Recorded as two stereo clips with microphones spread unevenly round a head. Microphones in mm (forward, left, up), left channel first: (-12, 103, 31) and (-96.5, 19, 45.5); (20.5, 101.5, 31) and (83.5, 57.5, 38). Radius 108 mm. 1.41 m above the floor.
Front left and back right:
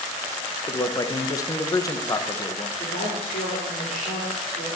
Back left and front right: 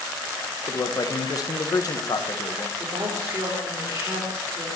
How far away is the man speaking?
About 1.4 m.